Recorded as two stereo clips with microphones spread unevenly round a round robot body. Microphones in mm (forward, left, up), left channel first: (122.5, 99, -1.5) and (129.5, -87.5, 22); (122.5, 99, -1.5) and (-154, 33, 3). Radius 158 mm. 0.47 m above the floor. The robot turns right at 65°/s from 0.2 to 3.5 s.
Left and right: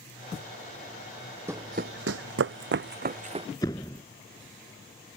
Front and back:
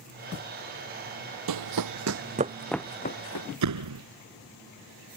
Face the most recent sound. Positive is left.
turn(degrees=170)